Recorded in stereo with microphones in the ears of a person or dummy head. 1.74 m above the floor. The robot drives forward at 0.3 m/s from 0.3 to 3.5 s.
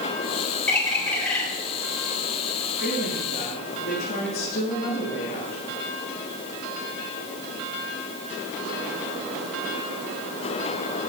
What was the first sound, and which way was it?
A bird, 5° left (ahead or behind).